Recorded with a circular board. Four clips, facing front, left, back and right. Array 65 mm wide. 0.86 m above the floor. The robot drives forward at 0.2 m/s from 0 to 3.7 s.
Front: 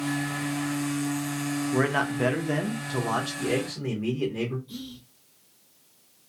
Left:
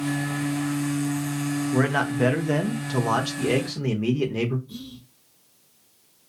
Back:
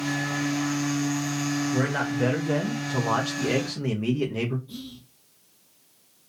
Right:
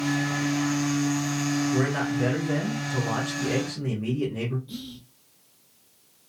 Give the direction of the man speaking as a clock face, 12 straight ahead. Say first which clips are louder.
Left 2 dB, front 1 dB; 10 o'clock.